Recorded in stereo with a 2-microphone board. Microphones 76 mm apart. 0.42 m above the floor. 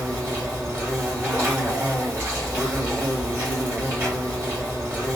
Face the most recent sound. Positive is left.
turn(degrees=-35)  # may be behind; listen again after turning